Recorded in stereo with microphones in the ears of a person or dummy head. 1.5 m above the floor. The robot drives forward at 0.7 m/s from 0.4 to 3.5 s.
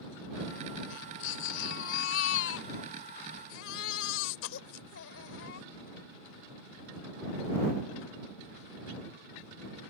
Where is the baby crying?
75° left (ahead or behind); by 5.7 s 80° left.